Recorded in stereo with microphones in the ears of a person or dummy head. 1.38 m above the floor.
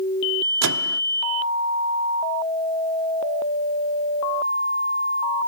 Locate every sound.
0.6 s a microwave: 80° right